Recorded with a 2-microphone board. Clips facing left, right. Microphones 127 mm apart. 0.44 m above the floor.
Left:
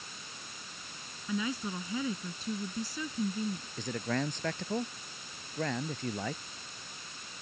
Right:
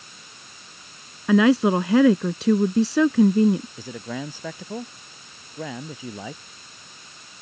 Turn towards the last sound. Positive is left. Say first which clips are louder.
# right 1 dB
turn(degrees=-10)  # may be behind; listen again after turning